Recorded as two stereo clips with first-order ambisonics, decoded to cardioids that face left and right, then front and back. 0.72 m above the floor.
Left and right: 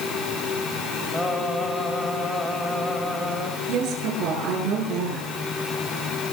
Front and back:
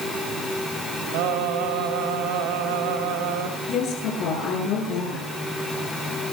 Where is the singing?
175° left, 4.5 m.